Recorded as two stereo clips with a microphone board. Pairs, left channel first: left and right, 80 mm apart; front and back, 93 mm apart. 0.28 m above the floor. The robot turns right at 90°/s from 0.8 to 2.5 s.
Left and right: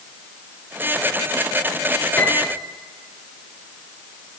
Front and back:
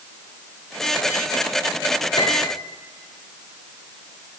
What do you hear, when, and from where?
2.2 s a piano: 20° left, 4 m; by 2.6 s 50° left, 4 m